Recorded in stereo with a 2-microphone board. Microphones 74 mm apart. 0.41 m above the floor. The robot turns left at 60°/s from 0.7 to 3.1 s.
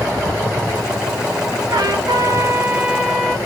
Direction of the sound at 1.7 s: 95° right.